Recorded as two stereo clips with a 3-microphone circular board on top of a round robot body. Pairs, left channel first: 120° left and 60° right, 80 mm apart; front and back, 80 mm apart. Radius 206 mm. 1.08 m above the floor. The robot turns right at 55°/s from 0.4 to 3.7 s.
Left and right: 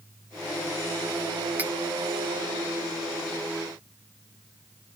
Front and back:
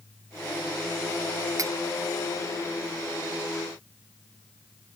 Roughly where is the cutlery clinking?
Behind right.